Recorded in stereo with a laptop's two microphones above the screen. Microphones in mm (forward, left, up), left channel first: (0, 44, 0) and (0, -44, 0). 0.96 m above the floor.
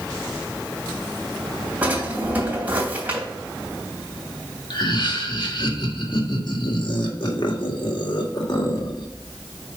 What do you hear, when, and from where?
1.8 s a drawer: 20° right (ahead or behind), 3 m
4.7 s laughter: 60° left (ahead or behind), 1.6 m